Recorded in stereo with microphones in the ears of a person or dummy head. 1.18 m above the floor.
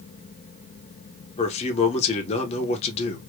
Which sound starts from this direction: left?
A man speaking, at 1.4 s.